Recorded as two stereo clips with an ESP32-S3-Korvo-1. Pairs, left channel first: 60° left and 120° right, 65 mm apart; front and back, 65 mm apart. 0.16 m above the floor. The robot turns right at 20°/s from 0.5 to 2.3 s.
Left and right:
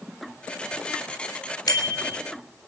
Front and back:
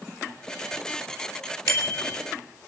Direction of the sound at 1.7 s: 40° left.